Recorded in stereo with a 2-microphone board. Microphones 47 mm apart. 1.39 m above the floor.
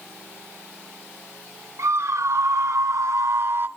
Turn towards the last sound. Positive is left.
turn(degrees=-45)  # may be behind; listen again after turning